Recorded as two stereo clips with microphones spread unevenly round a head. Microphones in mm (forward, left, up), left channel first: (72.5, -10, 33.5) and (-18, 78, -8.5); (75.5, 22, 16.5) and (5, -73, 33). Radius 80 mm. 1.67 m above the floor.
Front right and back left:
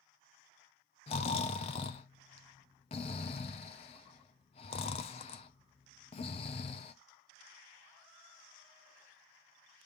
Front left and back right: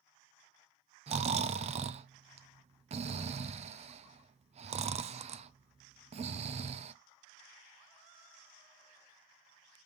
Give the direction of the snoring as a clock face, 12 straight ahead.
3 o'clock.